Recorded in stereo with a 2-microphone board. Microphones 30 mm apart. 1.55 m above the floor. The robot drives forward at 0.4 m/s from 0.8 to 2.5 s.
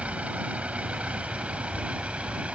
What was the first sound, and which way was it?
A vehicle, 50° right (ahead or behind).